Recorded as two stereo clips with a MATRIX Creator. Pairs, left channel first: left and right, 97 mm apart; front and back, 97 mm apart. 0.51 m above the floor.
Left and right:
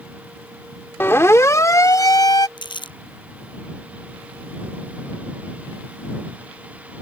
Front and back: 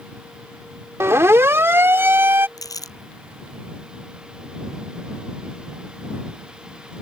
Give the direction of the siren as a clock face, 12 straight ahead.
7 o'clock.